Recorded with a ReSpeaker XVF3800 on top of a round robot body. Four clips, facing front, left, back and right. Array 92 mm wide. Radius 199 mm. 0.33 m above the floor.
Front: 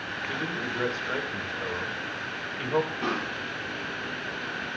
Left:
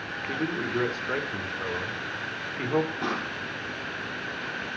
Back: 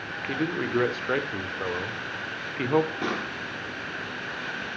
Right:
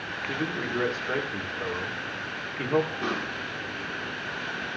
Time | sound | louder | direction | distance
0.3 | a man speaking | left 1 dB, back 6 dB | straight behind | 1.6 m
3.0 | a pop | even, even | straight behind | 6.5 m